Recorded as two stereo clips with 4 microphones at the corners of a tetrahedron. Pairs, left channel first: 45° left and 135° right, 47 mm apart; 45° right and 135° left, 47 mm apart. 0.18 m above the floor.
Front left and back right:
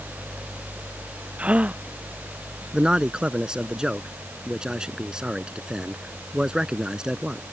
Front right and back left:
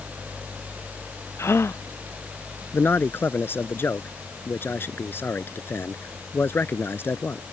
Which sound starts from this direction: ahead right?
A man speaking, at 2.7 s.